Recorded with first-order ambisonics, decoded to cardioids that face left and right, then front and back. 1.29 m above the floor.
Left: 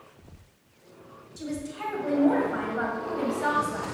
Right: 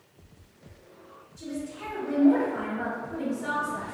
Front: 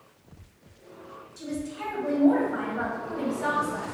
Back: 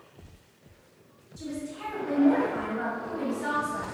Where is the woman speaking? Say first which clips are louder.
Left 2 dB, front 2 dB; 70° left, 1.3 m.